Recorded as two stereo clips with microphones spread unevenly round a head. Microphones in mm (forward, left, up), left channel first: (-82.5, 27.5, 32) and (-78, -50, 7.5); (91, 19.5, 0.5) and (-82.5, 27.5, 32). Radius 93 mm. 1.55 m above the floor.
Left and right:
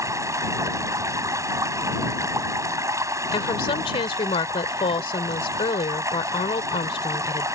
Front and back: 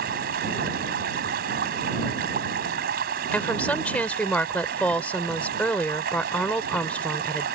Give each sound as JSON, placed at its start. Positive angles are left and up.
{"t": 0.0, "sound": "running water", "azimuth_deg": -140}
{"t": 3.3, "sound": "a woman speaking", "azimuth_deg": 80}